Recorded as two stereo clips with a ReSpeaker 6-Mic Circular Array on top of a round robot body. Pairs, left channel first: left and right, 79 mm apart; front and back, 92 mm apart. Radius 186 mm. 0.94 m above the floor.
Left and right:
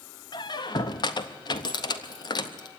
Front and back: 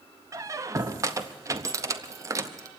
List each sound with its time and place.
0.3 s a squeak: 120° left, 0.6 m